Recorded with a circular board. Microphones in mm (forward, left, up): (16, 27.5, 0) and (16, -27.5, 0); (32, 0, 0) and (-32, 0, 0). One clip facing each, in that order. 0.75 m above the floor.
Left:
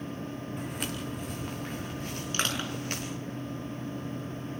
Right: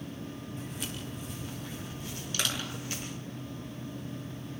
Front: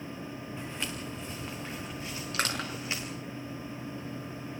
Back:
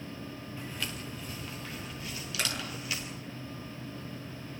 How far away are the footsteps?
About 4 m.